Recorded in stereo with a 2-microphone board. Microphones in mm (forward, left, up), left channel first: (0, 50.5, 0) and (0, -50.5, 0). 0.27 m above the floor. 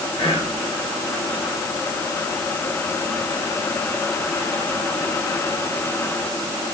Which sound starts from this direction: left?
Whispering, at 0.2 s.